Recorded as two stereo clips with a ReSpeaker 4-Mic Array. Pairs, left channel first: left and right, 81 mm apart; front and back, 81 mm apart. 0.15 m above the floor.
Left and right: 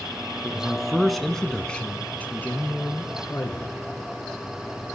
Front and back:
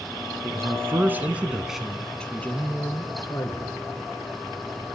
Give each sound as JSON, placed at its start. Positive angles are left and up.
{"t": 0.4, "sound": "a man speaking", "azimuth_deg": -165, "distance_m": 1.5}